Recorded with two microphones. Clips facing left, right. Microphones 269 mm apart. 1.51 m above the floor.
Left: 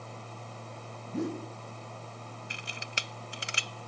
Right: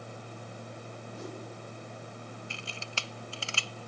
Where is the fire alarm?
I don't hear a fire alarm.